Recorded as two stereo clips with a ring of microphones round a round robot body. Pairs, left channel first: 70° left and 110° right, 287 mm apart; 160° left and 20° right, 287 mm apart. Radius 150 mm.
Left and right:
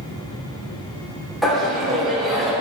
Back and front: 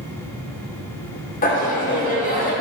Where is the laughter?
155° left, 1.3 m.